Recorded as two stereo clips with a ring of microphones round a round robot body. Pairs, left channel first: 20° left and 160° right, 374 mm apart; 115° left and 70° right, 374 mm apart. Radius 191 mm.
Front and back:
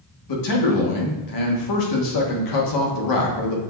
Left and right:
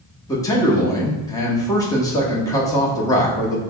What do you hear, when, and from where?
0.3 s a man speaking: 35° left, 1.0 m